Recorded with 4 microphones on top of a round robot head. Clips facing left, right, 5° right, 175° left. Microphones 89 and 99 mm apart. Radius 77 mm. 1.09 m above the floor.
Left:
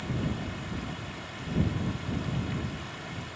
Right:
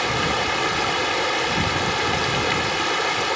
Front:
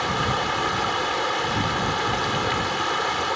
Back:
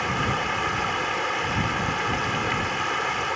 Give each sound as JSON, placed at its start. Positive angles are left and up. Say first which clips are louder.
{"t": 0.0, "sound": "running water", "louder": "right 11 dB, front 2 dB", "azimuth_deg": -85}